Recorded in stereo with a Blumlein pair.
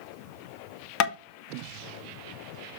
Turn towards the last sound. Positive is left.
turn(degrees=40)